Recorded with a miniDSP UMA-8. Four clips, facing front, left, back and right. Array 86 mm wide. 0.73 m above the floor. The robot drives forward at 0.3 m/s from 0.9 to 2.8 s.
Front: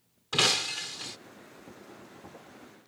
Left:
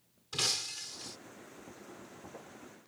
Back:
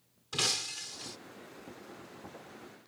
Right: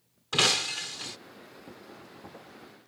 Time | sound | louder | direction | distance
0.3 | breaking glass | right 12 dB, front 8 dB | 60° right | ?